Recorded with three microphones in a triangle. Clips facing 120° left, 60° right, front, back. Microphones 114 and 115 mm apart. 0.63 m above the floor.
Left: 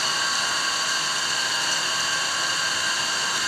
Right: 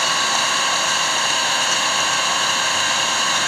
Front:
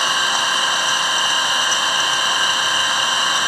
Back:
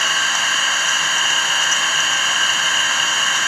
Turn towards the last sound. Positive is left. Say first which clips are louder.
# right 7 dB, front 2 dB
turn(degrees=-70)